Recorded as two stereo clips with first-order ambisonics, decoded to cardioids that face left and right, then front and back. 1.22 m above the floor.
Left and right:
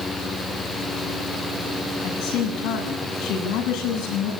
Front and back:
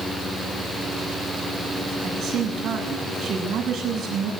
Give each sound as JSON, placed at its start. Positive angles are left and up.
{"t": 2.0, "sound": "a woman speaking", "azimuth_deg": 115, "distance_m": 8.0}